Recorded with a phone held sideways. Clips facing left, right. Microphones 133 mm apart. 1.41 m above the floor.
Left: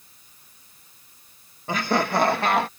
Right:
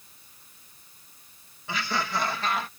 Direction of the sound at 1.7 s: 45° left (ahead or behind).